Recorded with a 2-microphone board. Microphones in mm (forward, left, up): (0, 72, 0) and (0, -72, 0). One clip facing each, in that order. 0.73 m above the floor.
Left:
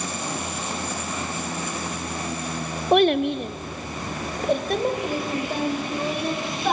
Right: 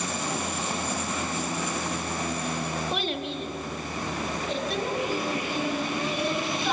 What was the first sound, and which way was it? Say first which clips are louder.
A child speaking: left 12 dB; 55° left (ahead or behind).